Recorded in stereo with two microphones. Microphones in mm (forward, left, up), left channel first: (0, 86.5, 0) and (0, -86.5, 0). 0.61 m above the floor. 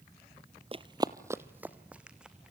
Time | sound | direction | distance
0.7 | running footsteps | 35° right (ahead or behind) | 0.7 m